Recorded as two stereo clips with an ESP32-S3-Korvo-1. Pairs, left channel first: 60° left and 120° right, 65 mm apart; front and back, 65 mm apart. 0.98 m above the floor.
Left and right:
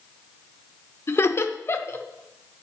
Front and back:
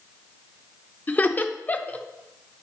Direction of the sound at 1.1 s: 45° left.